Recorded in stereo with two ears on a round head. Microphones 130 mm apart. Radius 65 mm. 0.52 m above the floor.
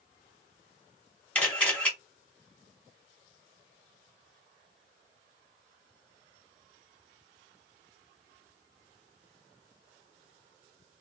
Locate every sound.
1.4 s a camera shutter: 10° left (ahead or behind), 1.8 m